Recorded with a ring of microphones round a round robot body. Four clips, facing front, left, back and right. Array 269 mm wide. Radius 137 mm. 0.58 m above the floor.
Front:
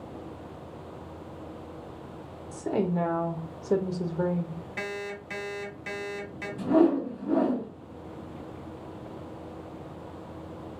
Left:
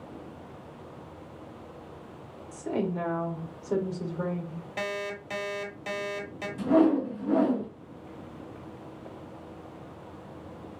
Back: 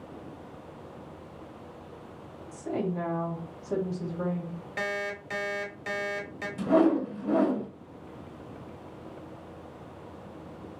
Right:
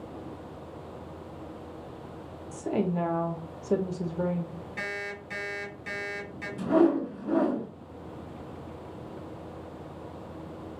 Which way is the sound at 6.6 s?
Straight behind.